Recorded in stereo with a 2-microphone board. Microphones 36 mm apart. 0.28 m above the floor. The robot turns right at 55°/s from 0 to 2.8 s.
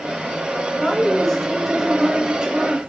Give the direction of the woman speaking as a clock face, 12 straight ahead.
8 o'clock.